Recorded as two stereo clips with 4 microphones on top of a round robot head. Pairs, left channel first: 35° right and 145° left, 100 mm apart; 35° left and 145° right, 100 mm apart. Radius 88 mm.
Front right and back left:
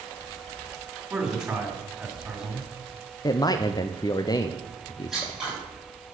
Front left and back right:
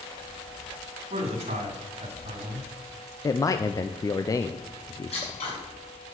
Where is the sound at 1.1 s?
135° right, 2.5 m.